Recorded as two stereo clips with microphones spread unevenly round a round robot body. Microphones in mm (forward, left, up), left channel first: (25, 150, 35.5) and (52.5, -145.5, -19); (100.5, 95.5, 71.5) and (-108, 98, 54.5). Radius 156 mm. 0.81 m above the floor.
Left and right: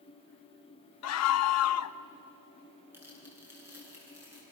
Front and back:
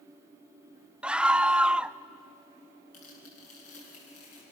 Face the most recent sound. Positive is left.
turn(degrees=0)